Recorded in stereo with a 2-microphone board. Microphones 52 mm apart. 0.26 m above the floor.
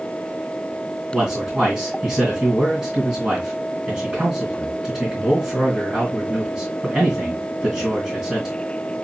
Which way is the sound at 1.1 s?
25° right (ahead or behind).